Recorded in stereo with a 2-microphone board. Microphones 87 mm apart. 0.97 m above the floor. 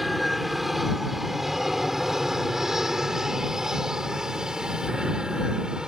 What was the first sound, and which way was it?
An aircraft, centre (ahead or behind).